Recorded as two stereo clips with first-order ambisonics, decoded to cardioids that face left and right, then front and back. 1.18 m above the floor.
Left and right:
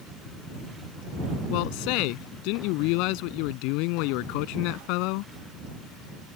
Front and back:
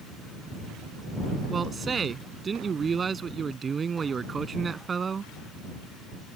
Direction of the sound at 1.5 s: 110° left.